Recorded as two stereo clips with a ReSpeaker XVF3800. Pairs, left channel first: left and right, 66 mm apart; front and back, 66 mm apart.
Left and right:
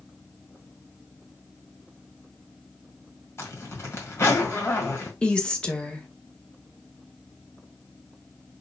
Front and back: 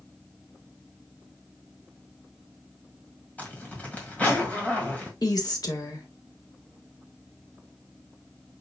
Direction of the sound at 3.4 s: 60° left.